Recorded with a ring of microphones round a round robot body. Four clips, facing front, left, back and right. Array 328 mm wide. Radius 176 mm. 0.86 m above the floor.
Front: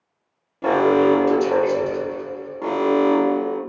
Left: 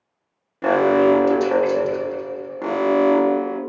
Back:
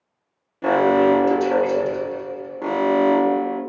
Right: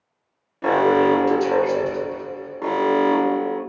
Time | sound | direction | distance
0.6 | an alarm | 95° left | 1.1 m